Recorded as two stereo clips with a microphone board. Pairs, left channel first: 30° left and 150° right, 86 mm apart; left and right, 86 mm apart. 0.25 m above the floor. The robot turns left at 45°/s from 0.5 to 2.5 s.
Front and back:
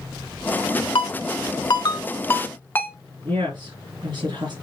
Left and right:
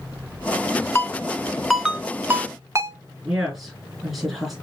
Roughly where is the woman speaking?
Behind.